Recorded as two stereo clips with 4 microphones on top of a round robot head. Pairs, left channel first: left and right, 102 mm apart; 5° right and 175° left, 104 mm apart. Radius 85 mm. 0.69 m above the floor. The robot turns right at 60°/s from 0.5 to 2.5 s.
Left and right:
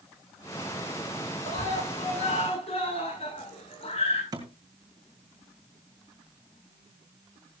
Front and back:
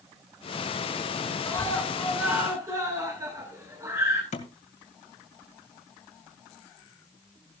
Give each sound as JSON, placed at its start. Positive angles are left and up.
{"t": 1.4, "sound": "a scream", "azimuth_deg": 50, "distance_m": 9.5}
{"t": 4.3, "sound": "a thud", "azimuth_deg": -25, "distance_m": 2.0}